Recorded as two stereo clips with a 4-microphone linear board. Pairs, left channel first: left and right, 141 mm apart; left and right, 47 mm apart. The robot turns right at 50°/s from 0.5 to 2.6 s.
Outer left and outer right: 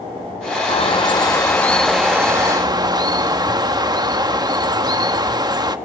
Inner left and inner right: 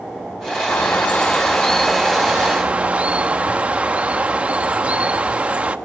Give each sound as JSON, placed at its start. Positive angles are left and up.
{"t": 0.7, "sound": "a bird", "azimuth_deg": 120, "distance_m": 0.7}